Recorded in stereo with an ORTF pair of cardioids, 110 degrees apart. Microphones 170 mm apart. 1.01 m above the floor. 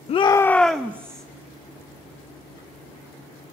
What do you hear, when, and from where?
0.1 s a shout: 40° left, 0.5 m; by 1.2 s 20° right, 0.8 m